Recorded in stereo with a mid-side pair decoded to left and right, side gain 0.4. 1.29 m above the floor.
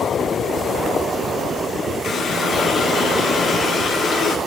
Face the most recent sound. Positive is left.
turn(degrees=60)